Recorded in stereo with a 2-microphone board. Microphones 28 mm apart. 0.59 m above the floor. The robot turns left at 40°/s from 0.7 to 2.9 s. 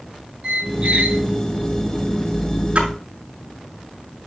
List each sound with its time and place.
0.4 s a squeak: 45° right (ahead or behind), 1.9 m; by 1.2 s 65° right (ahead or behind), 1.9 m
2.8 s a splash: 45° right (ahead or behind), 7 m; by 2.9 s 40° right (ahead or behind), 7 m